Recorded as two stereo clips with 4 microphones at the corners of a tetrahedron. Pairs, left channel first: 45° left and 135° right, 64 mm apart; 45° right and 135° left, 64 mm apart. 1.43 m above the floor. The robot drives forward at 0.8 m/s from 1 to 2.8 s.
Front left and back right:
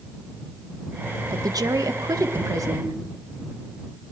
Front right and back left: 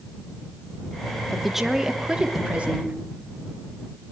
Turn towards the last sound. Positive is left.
turn(degrees=-155)